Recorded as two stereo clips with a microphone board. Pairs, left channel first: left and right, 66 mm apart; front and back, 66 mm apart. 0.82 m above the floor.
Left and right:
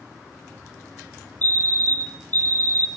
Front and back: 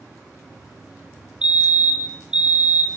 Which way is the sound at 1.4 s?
115° left.